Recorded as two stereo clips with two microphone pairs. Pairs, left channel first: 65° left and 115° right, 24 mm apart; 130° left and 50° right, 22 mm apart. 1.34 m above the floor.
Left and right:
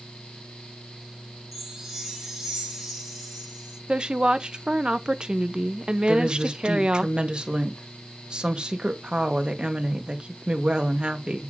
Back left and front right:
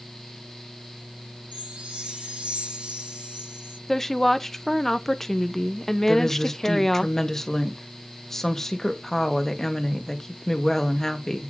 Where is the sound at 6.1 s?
160° right, 1.8 m.